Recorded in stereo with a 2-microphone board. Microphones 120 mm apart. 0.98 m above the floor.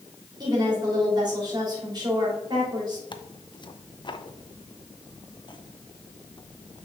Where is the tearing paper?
40° left (ahead or behind), 0.6 m.